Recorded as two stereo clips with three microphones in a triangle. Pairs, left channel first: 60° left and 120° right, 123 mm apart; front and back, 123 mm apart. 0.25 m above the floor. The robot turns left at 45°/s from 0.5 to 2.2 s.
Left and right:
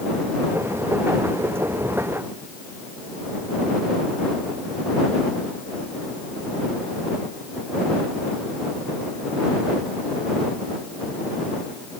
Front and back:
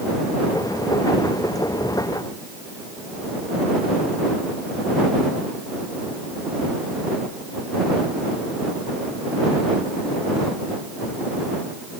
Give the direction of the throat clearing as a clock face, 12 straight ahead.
No throat clearing in this recording.